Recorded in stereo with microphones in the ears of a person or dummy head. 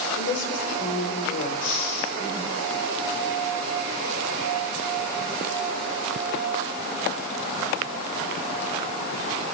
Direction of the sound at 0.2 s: 40° left (ahead or behind).